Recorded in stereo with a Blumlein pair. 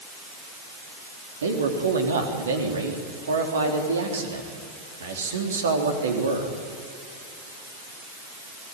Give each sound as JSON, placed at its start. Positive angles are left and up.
{"t": 1.4, "sound": "a man speaking", "azimuth_deg": -65, "distance_m": 3.5}